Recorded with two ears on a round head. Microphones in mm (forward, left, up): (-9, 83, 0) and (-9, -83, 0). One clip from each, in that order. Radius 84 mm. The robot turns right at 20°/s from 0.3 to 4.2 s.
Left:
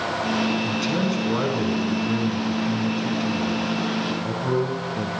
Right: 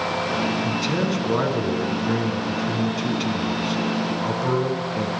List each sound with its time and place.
0.6 s a man speaking: 160° left, 5.5 m; by 5.1 s 130° right, 5.5 m